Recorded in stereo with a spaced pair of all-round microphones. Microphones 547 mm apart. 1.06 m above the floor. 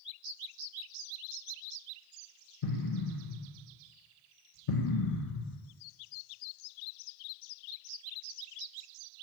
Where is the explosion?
80° left, 0.8 m.